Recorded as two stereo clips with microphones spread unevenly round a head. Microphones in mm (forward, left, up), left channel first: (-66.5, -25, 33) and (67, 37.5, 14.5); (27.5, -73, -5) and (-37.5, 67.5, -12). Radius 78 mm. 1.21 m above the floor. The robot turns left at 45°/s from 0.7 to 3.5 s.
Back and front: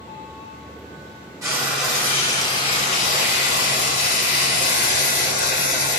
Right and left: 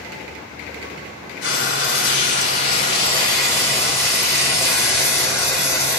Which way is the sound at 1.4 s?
45° right.